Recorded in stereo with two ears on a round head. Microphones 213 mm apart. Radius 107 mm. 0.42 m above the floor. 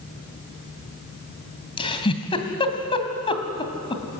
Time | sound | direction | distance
1.8 | a giggle | 25° left (ahead or behind) | 2.5 m